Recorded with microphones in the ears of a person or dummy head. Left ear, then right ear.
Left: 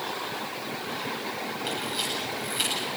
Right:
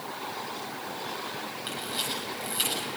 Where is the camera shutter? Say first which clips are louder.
Left 2 dB; 5° right (ahead or behind), 8 m.